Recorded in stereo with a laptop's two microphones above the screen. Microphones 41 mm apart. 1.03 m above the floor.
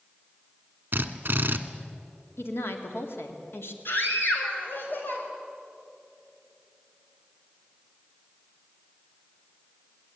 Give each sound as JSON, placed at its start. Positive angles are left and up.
{"t": 0.9, "sound": "a drill", "side_deg": -50, "distance_m": 1.4}
{"t": 2.4, "sound": "a woman speaking", "side_deg": 80, "distance_m": 2.0}
{"t": 3.9, "sound": "a scream", "side_deg": 60, "distance_m": 5.5}